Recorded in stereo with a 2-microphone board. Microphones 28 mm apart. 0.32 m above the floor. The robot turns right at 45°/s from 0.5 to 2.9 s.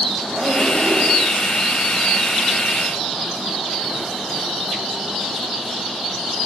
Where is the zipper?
105° right, 7.5 m; by 1.3 s 65° right, 7.5 m.